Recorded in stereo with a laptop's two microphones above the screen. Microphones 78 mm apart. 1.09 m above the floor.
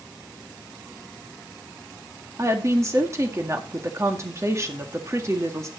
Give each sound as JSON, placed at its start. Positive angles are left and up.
{"t": 2.4, "sound": "a woman speaking", "side_deg": -35, "distance_m": 1.9}